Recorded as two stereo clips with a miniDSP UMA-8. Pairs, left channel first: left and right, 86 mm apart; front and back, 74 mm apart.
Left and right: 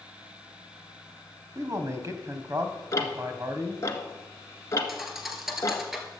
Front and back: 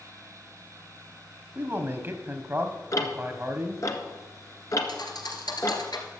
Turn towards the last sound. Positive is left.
turn(degrees=-5)